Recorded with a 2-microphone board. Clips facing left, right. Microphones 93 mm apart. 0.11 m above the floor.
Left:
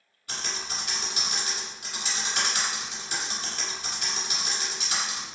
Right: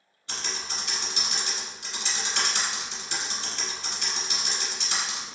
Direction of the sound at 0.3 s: 10° left (ahead or behind).